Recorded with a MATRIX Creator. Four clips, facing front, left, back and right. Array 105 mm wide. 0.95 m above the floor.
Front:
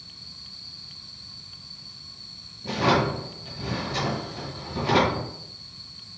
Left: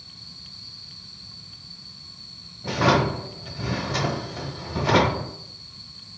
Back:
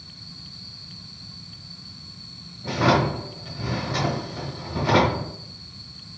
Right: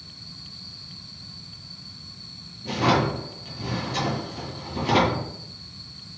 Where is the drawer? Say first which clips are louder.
Left 1 dB, back 2 dB; 120° left, 1.0 m.